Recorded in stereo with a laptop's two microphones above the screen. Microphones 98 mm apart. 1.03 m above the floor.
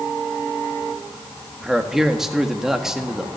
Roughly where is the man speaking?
Centre.